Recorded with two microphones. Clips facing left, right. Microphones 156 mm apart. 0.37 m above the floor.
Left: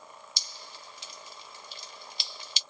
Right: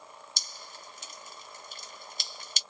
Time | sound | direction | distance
0.4 | dripping | 45° right (ahead or behind) | 0.6 m